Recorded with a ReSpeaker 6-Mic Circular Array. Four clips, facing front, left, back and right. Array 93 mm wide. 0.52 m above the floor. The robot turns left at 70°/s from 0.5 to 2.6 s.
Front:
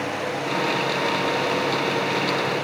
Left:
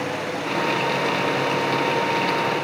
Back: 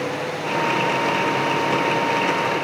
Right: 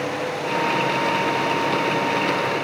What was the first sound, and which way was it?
Only background noise.